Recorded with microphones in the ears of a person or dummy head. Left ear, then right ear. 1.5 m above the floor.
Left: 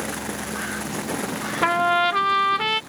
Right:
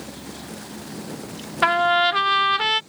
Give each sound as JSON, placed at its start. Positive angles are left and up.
{"t": 1.6, "sound": "a trumpet", "side_deg": -25}